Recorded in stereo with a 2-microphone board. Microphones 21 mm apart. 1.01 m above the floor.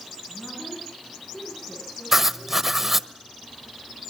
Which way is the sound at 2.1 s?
10° right (ahead or behind).